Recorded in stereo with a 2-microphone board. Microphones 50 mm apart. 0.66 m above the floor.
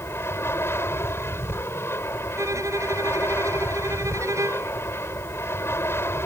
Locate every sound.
0.0 s an aircraft: 50° left (ahead or behind)
2.4 s a violin: 80° right